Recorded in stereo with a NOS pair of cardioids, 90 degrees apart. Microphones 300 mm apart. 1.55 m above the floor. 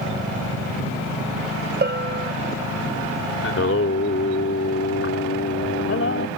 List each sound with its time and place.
1.8 s a bell: 30° right
3.4 s singing: 45° left